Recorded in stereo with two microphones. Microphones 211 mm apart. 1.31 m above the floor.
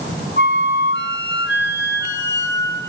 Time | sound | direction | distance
0.4 | a flute | 65° left (ahead or behind) | 2.5 m